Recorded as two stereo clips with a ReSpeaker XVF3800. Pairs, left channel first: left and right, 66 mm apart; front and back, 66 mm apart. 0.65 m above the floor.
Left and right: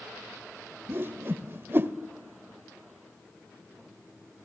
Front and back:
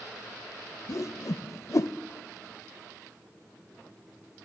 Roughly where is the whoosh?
Ahead right.